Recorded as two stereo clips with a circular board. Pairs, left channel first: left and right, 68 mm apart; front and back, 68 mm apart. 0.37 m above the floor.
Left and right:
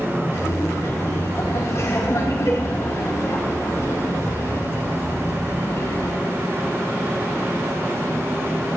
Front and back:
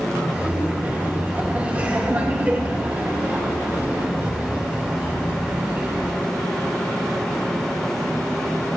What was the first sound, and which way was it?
Laughter, 120° left.